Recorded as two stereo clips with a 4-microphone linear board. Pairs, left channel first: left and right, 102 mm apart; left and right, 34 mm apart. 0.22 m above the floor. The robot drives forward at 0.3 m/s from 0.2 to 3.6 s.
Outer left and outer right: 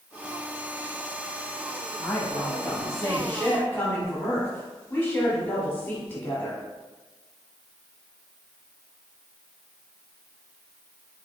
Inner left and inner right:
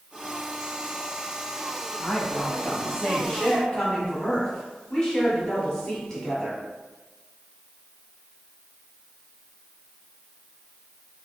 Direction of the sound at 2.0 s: 25° left (ahead or behind).